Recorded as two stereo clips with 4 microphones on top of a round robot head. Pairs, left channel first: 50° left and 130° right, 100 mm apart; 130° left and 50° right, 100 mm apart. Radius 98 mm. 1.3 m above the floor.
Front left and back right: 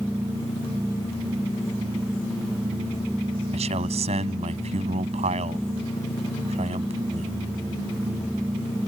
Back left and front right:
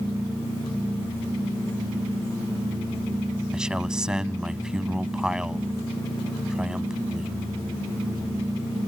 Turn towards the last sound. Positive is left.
turn(degrees=-135)